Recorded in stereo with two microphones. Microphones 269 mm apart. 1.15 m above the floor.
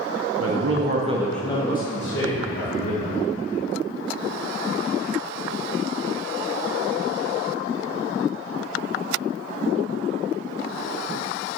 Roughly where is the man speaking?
Right.